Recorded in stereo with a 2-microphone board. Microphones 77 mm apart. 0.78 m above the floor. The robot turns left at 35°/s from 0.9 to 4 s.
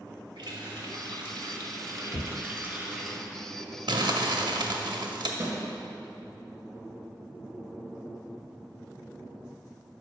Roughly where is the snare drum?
Right.